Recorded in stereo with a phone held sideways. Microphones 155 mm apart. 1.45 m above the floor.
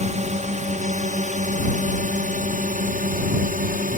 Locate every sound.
0.0 s a drone: 45° right (ahead or behind); by 4.0 s 60° right (ahead or behind)